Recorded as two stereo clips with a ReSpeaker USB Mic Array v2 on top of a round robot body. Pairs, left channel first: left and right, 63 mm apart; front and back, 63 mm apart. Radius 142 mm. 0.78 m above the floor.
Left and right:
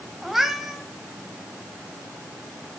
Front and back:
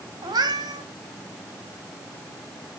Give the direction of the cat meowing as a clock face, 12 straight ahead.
6 o'clock.